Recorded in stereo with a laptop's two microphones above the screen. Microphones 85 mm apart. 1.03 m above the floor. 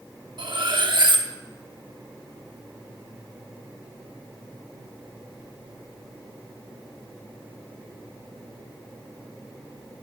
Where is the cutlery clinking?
65° right (ahead or behind), 1.0 m.